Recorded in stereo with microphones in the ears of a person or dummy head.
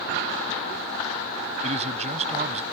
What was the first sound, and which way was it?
A man speaking, 35° right (ahead or behind).